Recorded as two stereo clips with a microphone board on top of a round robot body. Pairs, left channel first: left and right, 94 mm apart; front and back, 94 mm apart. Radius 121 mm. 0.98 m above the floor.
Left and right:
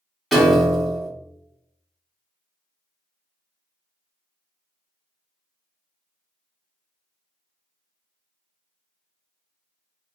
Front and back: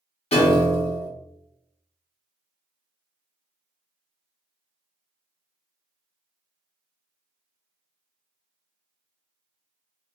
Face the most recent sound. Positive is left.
turn(degrees=0)